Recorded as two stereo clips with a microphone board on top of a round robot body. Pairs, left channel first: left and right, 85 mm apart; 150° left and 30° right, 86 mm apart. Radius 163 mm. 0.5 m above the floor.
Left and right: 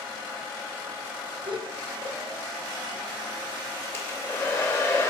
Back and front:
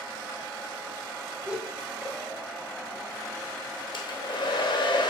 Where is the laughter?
95° right, 2.5 m.